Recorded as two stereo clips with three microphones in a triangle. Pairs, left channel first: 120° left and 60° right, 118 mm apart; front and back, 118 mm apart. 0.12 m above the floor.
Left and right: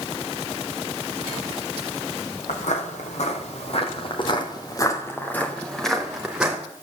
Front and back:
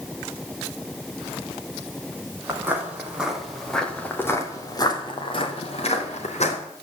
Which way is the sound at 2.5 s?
110° left.